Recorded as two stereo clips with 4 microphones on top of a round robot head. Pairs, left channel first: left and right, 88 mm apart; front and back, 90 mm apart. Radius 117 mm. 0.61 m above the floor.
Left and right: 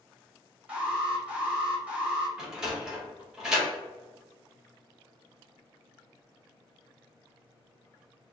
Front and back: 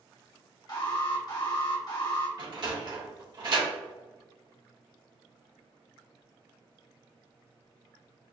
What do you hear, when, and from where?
0.7 s an alarm: 20° right, 1.1 m
2.4 s a sliding door: 170° right, 1.3 m